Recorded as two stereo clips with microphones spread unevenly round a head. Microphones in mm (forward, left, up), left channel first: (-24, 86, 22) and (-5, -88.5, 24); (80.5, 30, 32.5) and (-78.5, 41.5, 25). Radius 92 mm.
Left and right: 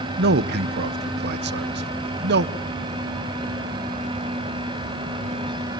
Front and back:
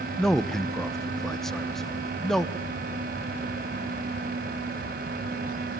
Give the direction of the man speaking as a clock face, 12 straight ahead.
3 o'clock.